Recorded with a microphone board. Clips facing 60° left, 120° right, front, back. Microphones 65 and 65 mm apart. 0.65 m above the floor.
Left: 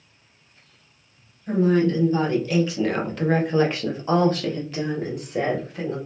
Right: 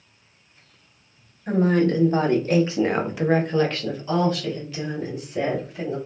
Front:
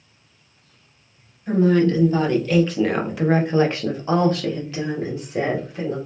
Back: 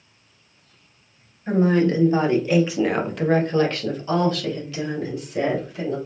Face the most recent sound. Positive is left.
turn(degrees=45)